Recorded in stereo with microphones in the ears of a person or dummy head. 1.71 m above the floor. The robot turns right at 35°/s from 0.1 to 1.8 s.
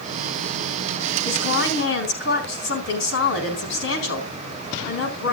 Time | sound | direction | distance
1.2 | a woman speaking | 70° left (ahead or behind) | 4 m